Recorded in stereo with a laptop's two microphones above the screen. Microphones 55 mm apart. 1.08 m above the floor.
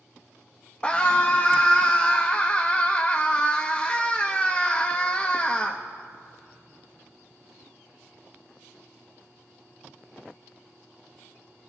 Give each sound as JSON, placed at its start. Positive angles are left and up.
{"t": 0.8, "sound": "a scream", "side_deg": 20, "distance_m": 1.1}